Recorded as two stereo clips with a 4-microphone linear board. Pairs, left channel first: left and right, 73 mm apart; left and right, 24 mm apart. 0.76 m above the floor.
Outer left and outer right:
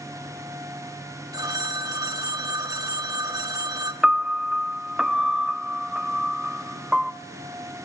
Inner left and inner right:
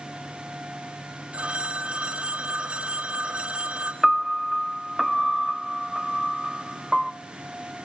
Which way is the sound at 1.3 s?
60° right (ahead or behind).